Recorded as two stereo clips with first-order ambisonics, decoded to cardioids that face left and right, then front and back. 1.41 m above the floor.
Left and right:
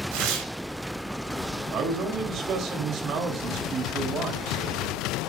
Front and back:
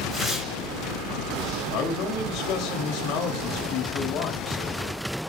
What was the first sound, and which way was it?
Tearing paper, 90° right.